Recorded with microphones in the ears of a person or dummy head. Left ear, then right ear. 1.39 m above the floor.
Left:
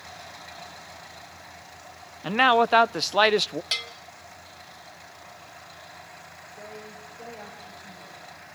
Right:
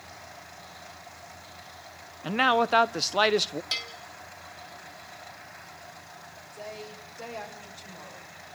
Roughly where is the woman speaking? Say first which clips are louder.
Right 2 dB; right.